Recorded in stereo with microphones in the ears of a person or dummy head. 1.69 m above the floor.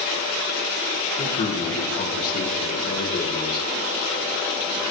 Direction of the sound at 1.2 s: 45° left (ahead or behind).